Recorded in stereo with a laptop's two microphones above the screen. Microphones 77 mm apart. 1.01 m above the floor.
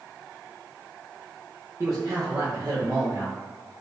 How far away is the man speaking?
About 0.8 m.